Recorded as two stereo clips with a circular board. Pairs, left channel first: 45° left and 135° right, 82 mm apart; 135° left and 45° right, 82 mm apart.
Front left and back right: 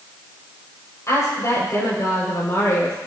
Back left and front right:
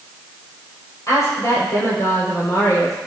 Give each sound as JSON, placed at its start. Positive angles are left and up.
{"t": 1.1, "sound": "a woman speaking", "azimuth_deg": 90, "distance_m": 5.5}